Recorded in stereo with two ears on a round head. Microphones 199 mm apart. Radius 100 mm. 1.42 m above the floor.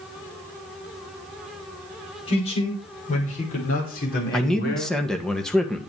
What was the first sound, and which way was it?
A man speaking, 25° left (ahead or behind).